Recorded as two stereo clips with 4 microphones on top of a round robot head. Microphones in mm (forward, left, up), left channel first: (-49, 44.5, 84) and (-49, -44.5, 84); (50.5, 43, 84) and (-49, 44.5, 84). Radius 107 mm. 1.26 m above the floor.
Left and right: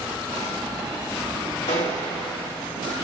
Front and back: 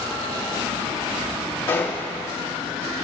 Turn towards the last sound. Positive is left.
turn(degrees=65)